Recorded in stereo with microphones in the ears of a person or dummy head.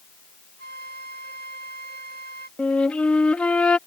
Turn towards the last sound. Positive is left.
turn(degrees=5)  # may be behind; listen again after turning